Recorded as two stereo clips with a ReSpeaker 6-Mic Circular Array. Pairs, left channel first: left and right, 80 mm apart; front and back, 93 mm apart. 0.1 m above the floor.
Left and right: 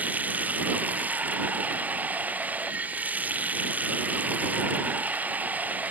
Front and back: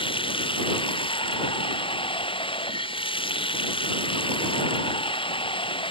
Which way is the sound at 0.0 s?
20° right.